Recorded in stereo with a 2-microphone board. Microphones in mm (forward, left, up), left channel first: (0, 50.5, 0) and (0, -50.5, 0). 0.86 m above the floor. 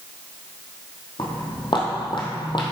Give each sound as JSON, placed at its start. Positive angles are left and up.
{"t": 1.2, "sound": "footsteps", "side_deg": 55, "distance_m": 1.9}